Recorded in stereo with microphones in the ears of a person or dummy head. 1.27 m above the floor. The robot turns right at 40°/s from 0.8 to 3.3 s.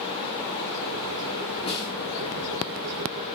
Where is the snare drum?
35° left (ahead or behind), 1.3 m; by 1.9 s 25° left (ahead or behind), 1.3 m.